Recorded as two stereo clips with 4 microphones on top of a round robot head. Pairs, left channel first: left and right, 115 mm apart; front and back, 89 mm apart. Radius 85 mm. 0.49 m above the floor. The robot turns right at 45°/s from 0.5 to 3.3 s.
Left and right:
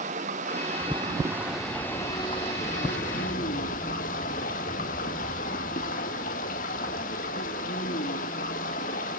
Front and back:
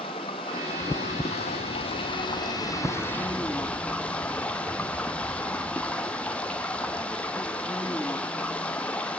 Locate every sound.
0.0 s running water: 50° right, 2 m; by 9.2 s 75° left, 2 m